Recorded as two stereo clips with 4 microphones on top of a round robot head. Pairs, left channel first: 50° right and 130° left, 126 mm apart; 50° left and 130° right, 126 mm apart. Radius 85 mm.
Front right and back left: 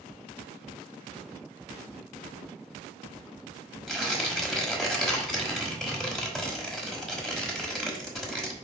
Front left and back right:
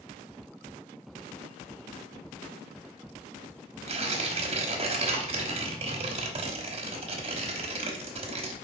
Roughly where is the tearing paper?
Behind right.